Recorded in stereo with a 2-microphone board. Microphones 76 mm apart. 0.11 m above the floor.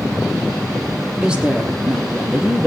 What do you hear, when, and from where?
1.2 s a woman speaking: 15° right (ahead or behind), 4.5 m; by 2.7 s 10° right (ahead or behind), 3 m